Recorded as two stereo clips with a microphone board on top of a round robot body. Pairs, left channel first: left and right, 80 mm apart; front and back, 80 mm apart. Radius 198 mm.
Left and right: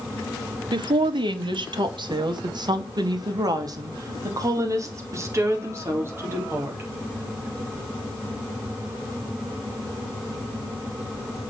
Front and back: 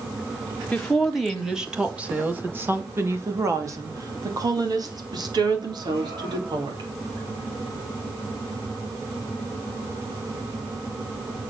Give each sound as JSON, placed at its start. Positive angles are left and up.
{"t": 0.7, "sound": "a woman speaking", "azimuth_deg": -80, "distance_m": 2.0}